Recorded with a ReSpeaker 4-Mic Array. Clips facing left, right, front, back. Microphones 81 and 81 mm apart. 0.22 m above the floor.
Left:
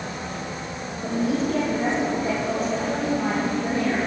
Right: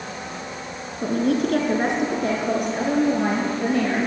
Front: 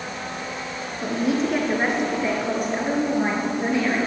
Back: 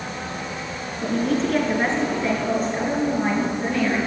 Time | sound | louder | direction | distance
1.0 | a woman speaking | right 3 dB, back 1 dB | 80° right | 2.5 m